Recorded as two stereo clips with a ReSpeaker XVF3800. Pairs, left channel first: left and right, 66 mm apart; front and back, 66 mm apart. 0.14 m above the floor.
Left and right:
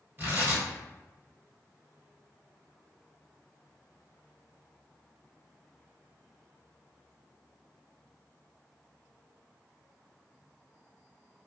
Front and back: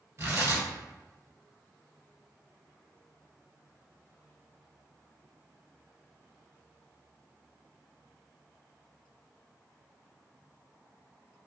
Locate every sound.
0.2 s tearing paper: 145° right, 1.6 m